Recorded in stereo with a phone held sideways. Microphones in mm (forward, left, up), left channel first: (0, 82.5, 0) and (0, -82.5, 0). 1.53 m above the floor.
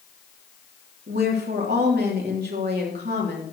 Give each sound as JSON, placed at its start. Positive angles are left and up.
{"t": 1.1, "sound": "a woman speaking", "side_deg": -90, "distance_m": 3.5}